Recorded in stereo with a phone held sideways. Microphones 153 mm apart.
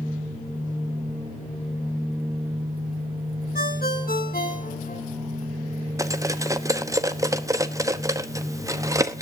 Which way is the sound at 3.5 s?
75° left (ahead or behind).